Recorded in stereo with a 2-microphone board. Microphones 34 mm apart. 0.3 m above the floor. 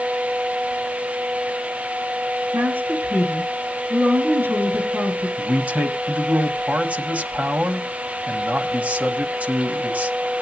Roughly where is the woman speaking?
Right.